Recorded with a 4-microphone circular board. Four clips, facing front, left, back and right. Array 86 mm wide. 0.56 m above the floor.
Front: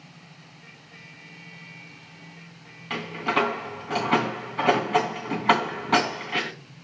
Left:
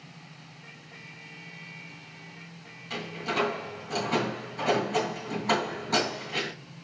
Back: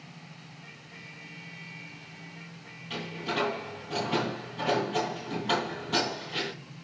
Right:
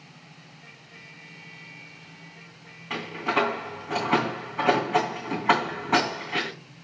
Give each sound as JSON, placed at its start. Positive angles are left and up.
{"t": 2.9, "sound": "a door slam", "azimuth_deg": -30, "distance_m": 3.0}